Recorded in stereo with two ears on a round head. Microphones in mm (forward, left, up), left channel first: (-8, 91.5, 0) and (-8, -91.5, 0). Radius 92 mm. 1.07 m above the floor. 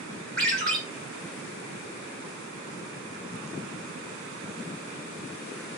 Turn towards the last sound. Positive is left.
turn(degrees=5)  # may be behind; listen again after turning